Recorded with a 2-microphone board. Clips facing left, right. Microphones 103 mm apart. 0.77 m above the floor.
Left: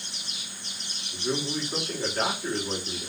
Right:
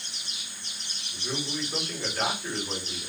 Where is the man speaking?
35° left (ahead or behind), 1.7 m.